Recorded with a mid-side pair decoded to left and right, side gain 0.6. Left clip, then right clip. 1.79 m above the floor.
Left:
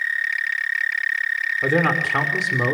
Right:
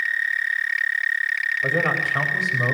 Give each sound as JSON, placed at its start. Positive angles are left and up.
{"t": 1.6, "sound": "a man speaking", "azimuth_deg": 60, "distance_m": 6.0}